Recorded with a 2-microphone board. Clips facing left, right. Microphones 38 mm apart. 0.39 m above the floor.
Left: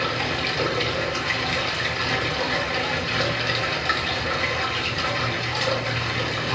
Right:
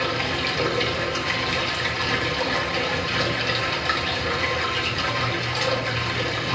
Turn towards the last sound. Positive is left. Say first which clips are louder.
# even
turn(degrees=0)  # may be behind; listen again after turning